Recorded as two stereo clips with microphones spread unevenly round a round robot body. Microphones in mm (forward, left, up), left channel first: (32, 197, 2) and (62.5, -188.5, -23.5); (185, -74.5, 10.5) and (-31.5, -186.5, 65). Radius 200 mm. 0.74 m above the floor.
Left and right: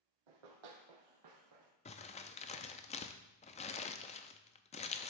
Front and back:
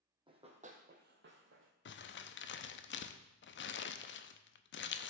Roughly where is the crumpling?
Ahead.